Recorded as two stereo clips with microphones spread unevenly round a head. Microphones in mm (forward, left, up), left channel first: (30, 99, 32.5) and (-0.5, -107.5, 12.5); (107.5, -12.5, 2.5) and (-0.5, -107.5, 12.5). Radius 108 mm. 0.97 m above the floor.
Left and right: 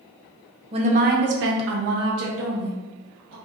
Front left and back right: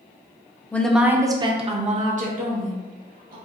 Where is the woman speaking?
35° right, 0.6 m; by 3.4 s 120° right, 1.3 m.